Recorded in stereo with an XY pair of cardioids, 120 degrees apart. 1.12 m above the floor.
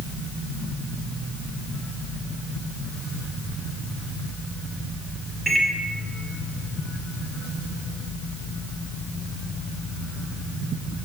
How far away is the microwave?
About 0.6 m.